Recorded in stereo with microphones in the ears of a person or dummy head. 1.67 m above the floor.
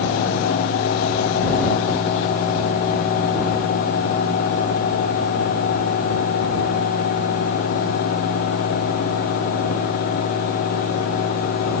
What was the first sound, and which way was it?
Only background noise.